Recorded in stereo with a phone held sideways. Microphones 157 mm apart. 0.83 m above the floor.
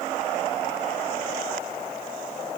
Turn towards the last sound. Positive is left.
No sound to turn to.